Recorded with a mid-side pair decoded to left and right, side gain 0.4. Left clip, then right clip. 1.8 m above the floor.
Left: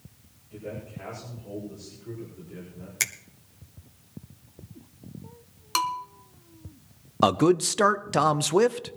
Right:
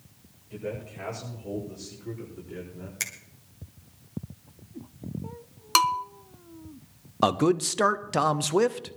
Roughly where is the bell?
Ahead right.